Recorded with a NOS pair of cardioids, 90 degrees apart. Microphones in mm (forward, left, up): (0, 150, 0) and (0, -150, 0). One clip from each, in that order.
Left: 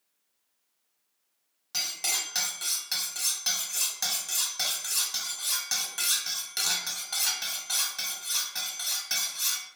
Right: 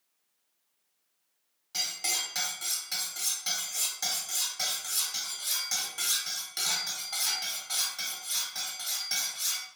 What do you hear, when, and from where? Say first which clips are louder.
1.7 s cutlery clinking: left 1 dB; 25° left, 0.8 m